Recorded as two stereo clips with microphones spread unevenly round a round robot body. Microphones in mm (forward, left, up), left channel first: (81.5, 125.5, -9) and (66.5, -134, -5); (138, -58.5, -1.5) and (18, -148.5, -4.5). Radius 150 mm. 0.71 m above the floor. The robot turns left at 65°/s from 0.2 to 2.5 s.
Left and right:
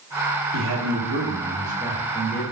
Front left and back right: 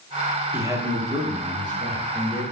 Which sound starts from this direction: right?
A man speaking, at 0.5 s.